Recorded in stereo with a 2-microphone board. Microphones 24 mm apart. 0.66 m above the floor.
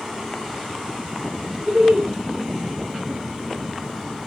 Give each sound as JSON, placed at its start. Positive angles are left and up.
{"t": 1.7, "sound": "laughter", "side_deg": -70, "distance_m": 1.8}